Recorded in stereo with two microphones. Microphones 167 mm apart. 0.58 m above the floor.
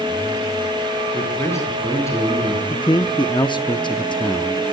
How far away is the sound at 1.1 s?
About 8.5 m.